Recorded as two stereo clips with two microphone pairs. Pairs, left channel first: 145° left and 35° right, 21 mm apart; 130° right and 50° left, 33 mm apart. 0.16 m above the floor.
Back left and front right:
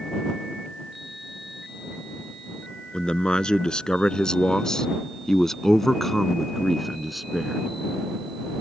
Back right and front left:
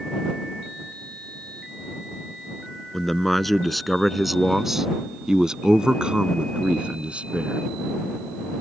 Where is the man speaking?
150° left; by 7.6 s 40° left.